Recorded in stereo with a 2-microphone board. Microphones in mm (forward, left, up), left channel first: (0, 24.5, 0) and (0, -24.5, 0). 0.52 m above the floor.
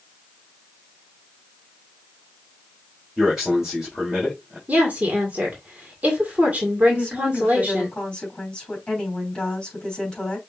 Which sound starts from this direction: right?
A woman speaking, at 4.7 s.